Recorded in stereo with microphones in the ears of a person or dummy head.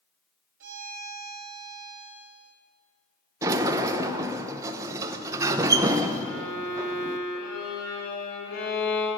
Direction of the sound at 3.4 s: 15° right (ahead or behind).